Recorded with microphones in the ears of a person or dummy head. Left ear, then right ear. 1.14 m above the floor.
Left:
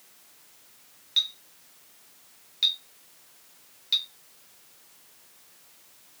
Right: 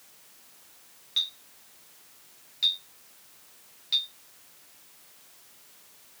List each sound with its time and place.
1.2 s a clink: 15° left (ahead or behind), 1.6 m